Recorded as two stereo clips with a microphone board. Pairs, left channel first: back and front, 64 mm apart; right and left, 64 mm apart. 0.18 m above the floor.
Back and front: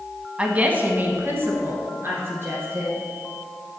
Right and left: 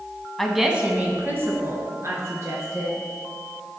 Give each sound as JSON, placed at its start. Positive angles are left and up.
{"t": 0.4, "sound": "a woman speaking", "azimuth_deg": -15, "distance_m": 1.0}